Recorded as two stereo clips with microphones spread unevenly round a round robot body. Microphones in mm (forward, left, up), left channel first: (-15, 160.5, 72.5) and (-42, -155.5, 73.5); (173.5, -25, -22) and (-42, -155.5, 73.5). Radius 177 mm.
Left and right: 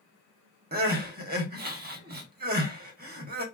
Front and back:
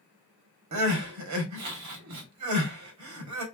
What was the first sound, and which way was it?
Crying, 150° right.